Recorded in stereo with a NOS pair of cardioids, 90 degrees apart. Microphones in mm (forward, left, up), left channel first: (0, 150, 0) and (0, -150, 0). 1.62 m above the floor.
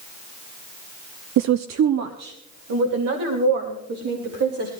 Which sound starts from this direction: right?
A woman speaking, at 1.4 s.